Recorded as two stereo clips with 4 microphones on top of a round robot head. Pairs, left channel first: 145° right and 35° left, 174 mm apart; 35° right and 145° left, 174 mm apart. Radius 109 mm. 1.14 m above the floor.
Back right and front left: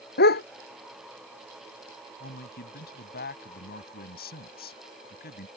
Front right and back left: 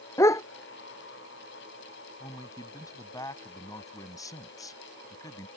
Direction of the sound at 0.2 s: 110° right.